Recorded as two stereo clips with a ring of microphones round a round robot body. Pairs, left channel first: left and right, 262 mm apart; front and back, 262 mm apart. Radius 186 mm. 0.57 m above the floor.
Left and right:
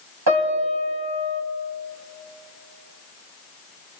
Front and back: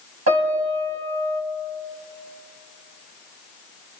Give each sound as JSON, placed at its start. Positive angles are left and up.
{"t": 0.3, "sound": "a piano", "azimuth_deg": -130, "distance_m": 3.5}